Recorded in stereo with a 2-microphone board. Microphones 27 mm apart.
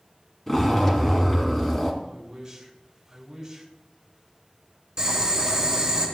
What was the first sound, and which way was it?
A zipper, 15° left (ahead or behind).